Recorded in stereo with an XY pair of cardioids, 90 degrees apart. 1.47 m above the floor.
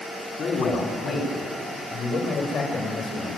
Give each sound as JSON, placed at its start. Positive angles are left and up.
{"t": 0.4, "sound": "a man speaking", "azimuth_deg": 60, "distance_m": 4.0}